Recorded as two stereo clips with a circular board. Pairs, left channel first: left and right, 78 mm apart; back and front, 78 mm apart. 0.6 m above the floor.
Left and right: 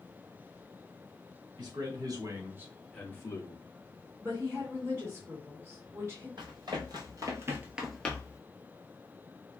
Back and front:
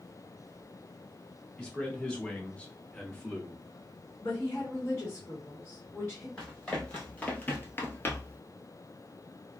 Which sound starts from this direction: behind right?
A woman speaking, at 4.2 s.